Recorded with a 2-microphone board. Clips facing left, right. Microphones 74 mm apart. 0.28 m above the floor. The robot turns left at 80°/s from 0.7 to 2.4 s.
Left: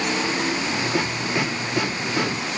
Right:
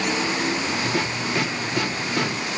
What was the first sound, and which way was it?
Only background noise.